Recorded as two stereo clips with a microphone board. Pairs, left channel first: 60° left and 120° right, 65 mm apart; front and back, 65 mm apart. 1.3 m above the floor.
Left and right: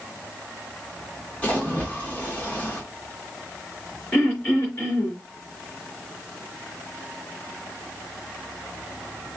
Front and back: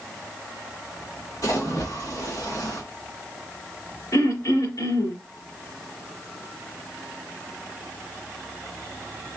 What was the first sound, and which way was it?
A splash, 5° right.